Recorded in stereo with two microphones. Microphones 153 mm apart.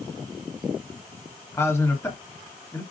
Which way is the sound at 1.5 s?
20° left (ahead or behind).